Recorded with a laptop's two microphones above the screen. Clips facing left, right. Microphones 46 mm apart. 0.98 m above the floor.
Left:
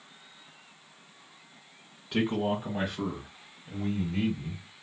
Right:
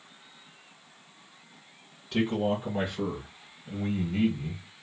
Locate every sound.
2.1 s a man speaking: 15° left (ahead or behind), 1.3 m; by 4.6 s 45° right (ahead or behind), 1.4 m